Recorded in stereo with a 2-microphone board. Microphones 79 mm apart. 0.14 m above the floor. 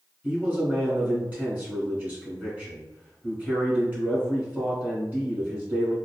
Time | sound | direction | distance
0.2 | a man speaking | 25° right (ahead or behind) | 1.5 m